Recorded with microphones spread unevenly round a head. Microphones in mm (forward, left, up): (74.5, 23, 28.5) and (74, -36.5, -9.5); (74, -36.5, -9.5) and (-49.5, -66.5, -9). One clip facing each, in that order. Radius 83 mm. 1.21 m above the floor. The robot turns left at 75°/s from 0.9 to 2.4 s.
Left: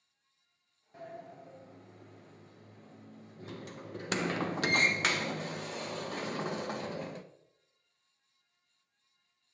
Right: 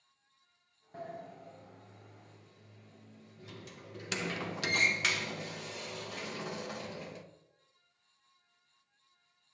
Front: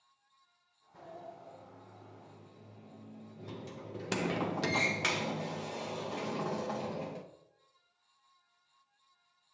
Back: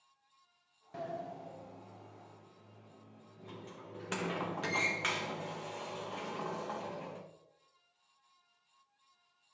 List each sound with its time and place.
0.9 s a sliding door: 175° right, 0.6 m; by 7.2 s 75° left, 0.6 m